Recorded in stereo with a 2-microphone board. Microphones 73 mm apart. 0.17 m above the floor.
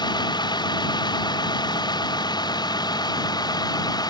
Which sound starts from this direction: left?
A vehicle, at 0.0 s.